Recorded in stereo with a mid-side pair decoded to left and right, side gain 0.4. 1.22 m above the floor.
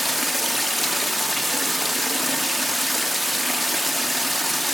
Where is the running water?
5° left, 1.4 m.